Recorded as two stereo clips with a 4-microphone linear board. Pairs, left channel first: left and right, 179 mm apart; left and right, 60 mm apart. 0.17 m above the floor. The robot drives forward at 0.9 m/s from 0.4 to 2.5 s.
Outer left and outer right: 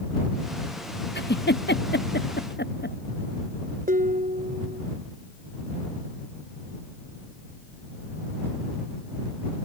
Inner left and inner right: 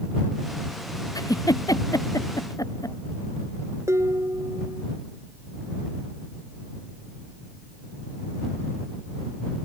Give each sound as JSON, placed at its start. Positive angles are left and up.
{"t": 1.1, "sound": "a giggle", "side_deg": 75}
{"t": 3.9, "sound": "dishes clattering", "side_deg": -55}